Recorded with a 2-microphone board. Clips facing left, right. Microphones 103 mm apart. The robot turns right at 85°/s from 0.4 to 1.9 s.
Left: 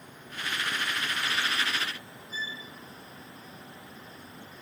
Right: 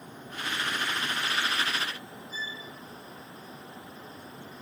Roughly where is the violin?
Right.